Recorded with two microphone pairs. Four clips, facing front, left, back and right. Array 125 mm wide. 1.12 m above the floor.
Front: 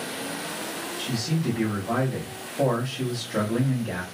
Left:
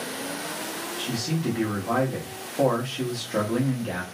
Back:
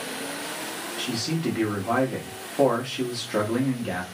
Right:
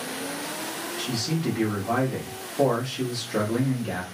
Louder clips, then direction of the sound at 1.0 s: Even, back 1 dB; 140° left.